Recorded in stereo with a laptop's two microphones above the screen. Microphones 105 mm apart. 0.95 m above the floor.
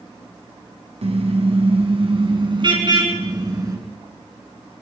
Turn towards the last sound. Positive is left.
turn(degrees=-35)  # may be behind; listen again after turning